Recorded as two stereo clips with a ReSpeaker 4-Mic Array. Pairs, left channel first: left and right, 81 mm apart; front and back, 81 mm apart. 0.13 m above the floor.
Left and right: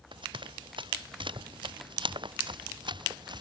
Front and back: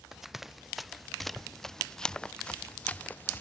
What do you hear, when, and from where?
0.1 s running footsteps: 95° right; by 3.4 s 65° right